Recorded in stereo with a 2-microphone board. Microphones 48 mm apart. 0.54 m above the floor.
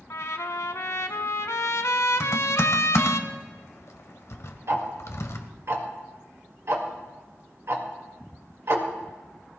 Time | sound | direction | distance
0.1 | a trumpet | 70° left (ahead or behind) | 0.9 m
2.2 | typing on a keyboard | 70° left (ahead or behind) | 1.1 m
4.7 | ticking | 60° right (ahead or behind) | 1.8 m